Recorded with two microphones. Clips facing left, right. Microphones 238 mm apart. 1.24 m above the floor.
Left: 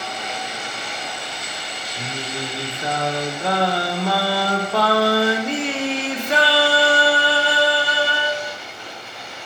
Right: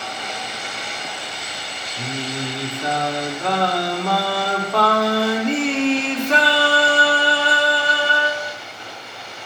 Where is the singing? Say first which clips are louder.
Right 3 dB; 5° left (ahead or behind), 0.8 m.